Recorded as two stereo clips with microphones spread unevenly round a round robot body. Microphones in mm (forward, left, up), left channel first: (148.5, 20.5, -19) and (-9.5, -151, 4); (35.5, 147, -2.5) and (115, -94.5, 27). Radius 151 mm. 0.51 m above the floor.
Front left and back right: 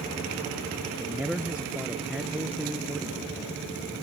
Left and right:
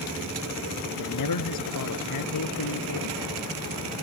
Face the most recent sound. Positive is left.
turn(degrees=140)